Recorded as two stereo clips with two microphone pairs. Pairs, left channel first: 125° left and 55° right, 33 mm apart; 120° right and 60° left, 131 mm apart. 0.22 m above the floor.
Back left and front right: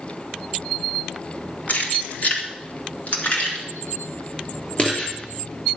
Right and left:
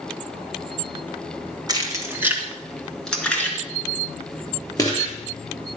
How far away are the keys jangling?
About 1.7 m.